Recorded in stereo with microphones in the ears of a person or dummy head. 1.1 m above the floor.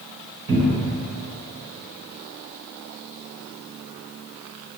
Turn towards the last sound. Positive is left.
turn(degrees=-50)  # may be behind; listen again after turning